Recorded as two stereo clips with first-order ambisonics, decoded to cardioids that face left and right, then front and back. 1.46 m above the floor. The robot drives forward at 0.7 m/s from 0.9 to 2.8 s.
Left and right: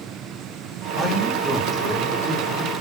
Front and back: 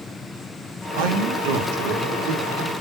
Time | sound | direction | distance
1.0 | a man speaking | straight behind | 1.3 m